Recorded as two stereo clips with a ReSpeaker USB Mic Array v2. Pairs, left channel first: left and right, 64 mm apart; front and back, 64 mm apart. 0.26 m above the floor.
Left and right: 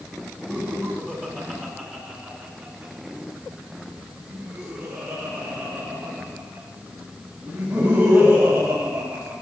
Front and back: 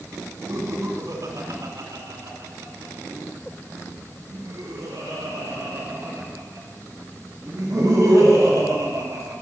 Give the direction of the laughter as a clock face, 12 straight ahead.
5 o'clock.